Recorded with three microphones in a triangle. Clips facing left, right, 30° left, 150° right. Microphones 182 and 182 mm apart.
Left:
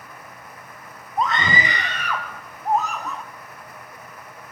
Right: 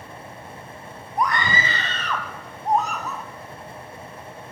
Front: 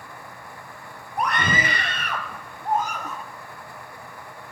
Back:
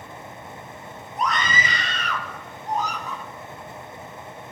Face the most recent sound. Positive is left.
turn(degrees=-5)